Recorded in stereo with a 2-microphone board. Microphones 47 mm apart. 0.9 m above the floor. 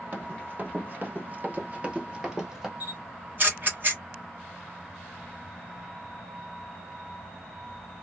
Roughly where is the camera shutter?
Right.